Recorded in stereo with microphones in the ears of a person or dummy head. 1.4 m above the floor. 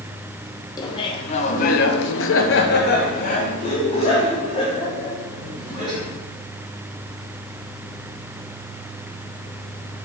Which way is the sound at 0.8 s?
20° left (ahead or behind).